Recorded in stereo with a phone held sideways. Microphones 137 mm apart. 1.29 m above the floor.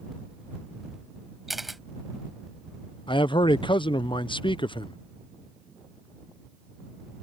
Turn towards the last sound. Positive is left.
turn(degrees=35)  # may be behind; listen again after turning